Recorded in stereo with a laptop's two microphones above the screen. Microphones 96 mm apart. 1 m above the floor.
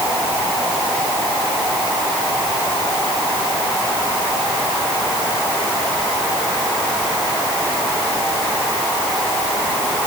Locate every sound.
Only background noise.